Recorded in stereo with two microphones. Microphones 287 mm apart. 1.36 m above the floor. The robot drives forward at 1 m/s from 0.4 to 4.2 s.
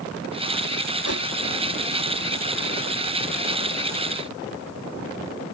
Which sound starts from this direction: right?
A whoosh, at 1.0 s.